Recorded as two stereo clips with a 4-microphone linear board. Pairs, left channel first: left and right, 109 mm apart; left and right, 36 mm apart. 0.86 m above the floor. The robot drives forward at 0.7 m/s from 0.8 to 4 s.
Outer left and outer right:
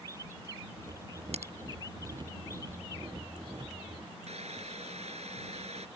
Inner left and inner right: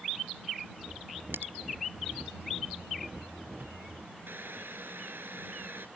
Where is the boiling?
75° right (ahead or behind).